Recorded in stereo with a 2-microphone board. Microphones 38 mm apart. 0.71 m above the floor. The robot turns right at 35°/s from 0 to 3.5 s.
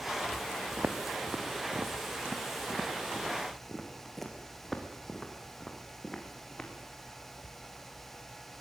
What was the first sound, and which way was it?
Footsteps, 45° right (ahead or behind).